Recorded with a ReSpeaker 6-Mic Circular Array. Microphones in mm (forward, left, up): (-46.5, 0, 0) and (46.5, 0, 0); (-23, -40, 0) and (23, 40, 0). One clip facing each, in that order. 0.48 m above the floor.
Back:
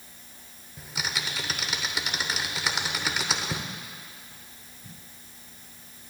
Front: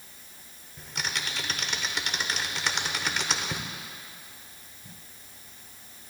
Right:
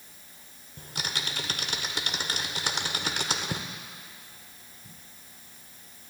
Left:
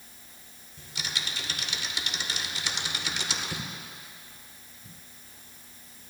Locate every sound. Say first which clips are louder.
0.8 s typing on a keyboard: back 1 dB, right 2 dB; 95° right, 0.9 m